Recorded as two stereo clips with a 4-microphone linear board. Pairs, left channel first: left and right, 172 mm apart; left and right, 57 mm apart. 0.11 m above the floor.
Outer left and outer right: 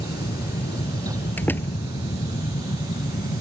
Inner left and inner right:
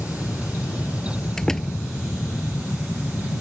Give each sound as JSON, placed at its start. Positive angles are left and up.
{"t": 0.0, "sound": "an aircraft", "side_deg": 70}
{"t": 1.4, "sound": "a door slam", "side_deg": 10}